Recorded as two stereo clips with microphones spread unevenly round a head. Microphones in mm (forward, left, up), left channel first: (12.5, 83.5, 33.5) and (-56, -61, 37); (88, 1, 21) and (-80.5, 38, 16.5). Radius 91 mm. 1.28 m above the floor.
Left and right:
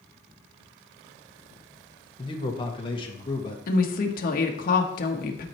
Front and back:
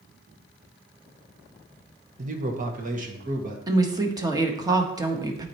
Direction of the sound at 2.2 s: 125° left.